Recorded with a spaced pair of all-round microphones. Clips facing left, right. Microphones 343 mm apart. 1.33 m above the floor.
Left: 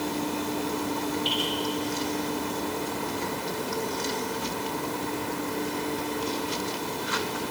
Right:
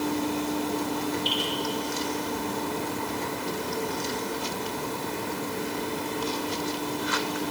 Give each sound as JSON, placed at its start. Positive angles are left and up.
{"t": 1.2, "sound": "dripping", "side_deg": 35, "distance_m": 9.0}